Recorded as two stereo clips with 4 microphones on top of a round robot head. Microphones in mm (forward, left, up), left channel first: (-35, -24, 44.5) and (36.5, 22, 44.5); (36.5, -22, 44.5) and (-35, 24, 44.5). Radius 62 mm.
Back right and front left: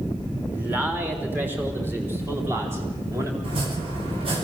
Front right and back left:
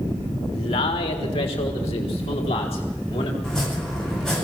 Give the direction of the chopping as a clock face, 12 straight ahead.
10 o'clock.